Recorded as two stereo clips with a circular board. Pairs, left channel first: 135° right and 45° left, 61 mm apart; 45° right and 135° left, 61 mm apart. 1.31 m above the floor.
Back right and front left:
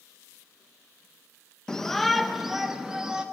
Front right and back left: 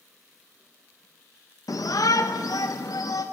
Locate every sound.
1.7 s a shout: 60° right, 0.8 m; by 3.2 s 35° right, 1.7 m